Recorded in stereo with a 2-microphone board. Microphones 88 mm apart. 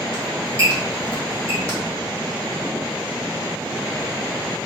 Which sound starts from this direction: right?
A squeak, at 0.1 s.